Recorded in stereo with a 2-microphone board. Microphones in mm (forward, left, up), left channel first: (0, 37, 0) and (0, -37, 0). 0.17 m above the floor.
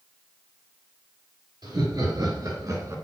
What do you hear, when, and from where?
1.6 s laughter: 65° right (ahead or behind), 3.5 m; by 3.0 s 45° right (ahead or behind), 2 m